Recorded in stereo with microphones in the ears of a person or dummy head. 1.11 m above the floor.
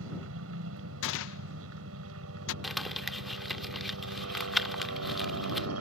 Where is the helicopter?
75° right (ahead or behind); by 5.8 s 80° right.